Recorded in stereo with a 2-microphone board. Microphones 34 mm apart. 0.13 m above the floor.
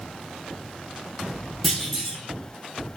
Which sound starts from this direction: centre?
A clunk, at 1.6 s.